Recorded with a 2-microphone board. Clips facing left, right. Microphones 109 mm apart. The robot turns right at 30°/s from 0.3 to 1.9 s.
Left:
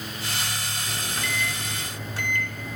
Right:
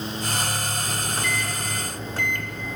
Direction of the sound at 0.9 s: 20° right (ahead or behind).